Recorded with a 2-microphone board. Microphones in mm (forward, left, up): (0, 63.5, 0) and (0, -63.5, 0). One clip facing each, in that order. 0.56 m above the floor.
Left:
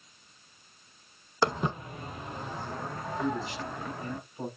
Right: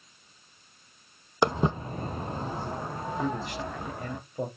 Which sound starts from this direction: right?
A man speaking, at 3.2 s.